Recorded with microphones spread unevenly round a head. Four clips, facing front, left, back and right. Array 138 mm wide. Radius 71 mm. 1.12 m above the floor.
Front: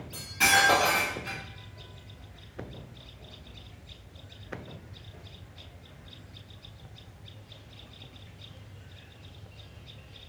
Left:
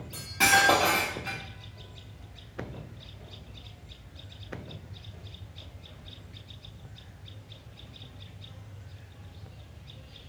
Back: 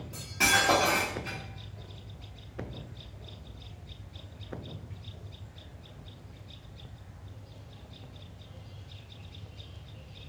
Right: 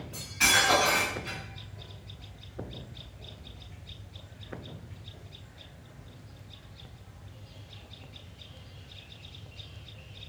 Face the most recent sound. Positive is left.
turn(degrees=110)